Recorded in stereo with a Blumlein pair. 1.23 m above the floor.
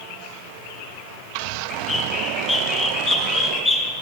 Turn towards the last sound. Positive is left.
turn(degrees=20)